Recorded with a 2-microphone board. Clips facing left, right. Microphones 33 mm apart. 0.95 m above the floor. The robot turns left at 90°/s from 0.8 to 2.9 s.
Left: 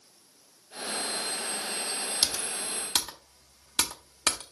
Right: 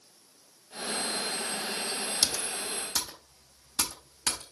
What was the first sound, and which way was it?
Typing on a keyboard, 20° left (ahead or behind).